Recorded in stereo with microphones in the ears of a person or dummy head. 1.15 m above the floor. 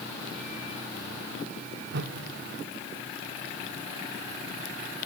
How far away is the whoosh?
About 1.7 m.